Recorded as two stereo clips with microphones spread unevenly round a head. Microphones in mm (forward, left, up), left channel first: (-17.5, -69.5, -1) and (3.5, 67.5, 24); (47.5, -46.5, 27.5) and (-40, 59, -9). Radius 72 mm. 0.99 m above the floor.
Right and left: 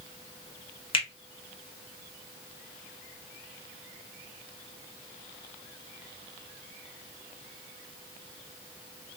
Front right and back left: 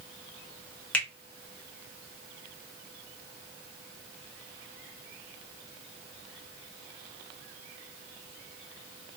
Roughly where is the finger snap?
Behind right.